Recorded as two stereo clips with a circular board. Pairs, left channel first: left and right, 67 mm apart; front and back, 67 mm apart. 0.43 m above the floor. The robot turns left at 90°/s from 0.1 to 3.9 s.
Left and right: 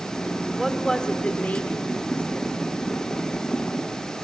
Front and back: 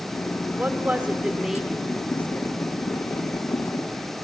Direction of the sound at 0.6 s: 175° right.